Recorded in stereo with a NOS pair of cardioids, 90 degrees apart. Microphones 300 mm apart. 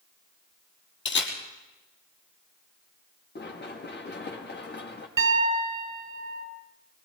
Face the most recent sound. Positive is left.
turn(degrees=-40)